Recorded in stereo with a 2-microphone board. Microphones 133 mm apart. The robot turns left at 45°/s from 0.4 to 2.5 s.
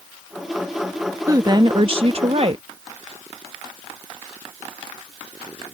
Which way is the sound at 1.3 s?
35° right.